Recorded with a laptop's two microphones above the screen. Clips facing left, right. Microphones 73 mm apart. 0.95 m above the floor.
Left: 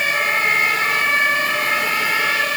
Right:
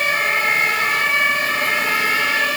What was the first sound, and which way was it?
Only background noise.